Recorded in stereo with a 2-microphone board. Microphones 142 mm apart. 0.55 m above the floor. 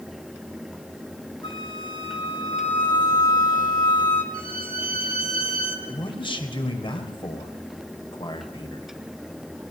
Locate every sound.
1.4 s a flute: 35° left (ahead or behind), 4.5 m
4.3 s a violin: 80° right, 3 m
5.9 s a man speaking: 35° left (ahead or behind), 3 m